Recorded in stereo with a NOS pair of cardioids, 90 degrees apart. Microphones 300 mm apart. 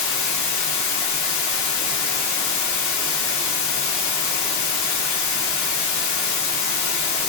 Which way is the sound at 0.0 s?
70° left.